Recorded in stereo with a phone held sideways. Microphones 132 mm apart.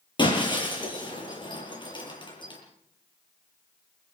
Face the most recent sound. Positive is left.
turn(degrees=35)  # may be behind; listen again after turning